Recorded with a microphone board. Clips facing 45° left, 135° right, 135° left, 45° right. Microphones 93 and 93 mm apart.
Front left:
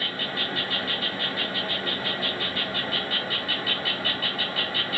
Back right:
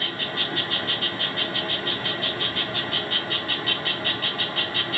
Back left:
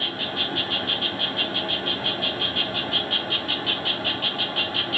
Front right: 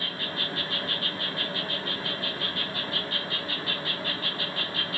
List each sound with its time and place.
0.0 s an insect: 130° left, 1.0 m